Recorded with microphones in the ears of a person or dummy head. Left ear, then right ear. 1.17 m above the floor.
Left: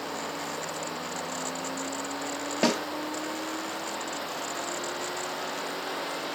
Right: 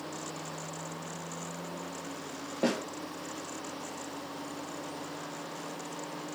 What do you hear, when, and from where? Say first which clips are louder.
2.6 s a snare drum: left 5 dB; 65° left (ahead or behind), 2.5 m